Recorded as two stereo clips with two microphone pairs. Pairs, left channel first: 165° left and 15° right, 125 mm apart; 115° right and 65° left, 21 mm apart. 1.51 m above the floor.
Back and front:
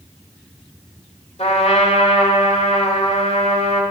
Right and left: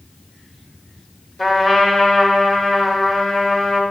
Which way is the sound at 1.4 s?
Straight behind.